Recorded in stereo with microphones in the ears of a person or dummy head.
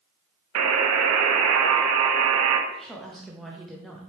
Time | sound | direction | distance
0.6 | a buzzer | 75° right (ahead or behind) | 0.5 m
2.7 | a woman speaking | centre (ahead or behind) | 0.5 m